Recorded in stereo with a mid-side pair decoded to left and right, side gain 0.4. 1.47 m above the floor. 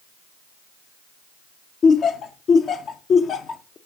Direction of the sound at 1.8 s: 65° left.